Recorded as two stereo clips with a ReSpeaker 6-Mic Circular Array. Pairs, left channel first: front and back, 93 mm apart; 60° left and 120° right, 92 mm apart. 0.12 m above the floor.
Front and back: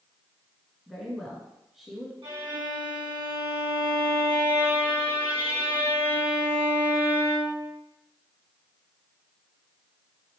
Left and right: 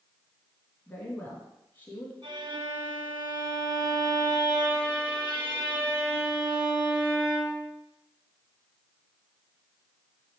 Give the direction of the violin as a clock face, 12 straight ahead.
5 o'clock.